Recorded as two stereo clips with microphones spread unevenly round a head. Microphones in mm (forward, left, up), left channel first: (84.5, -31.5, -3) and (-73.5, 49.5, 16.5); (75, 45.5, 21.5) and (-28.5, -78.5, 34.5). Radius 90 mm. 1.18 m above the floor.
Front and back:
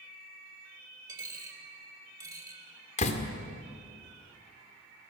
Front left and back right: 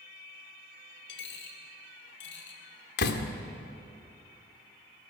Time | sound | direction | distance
1.1 | a dropped coin | 80° left | 2.5 m
3.0 | a door slam | 25° left | 2 m